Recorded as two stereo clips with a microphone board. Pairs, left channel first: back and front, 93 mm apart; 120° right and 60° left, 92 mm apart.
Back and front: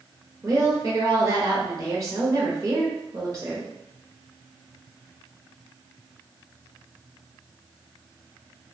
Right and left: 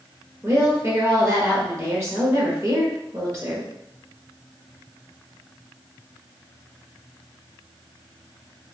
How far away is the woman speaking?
About 1.1 m.